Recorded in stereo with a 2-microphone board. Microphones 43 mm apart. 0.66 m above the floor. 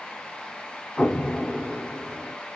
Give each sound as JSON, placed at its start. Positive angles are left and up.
{"t": 1.0, "sound": "an explosion", "side_deg": 25, "distance_m": 0.6}